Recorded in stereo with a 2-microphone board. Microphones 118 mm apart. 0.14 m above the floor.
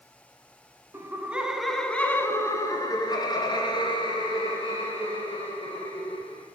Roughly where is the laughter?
Right.